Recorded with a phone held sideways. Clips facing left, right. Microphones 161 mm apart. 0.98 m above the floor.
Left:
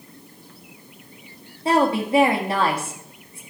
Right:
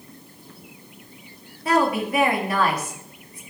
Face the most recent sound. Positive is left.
turn(degrees=25)  # may be behind; listen again after turning